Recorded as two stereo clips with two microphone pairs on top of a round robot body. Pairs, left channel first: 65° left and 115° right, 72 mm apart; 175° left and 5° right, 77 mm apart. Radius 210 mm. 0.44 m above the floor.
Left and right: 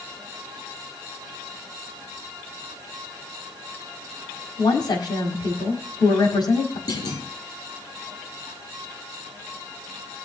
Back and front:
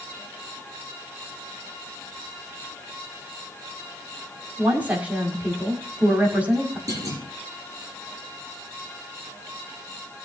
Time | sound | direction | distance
4.6 | a woman speaking | 65° left | 4.5 m
6.9 | a clunk | 45° left | 9.5 m